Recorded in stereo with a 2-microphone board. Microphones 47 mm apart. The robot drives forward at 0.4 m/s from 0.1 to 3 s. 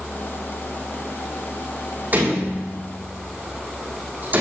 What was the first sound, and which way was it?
A door slam, 40° right (ahead or behind).